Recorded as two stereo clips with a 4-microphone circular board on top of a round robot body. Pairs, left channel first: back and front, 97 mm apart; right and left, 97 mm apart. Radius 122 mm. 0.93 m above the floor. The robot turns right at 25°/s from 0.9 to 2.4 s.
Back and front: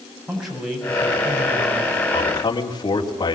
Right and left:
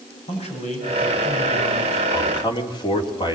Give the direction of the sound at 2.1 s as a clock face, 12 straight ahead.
5 o'clock.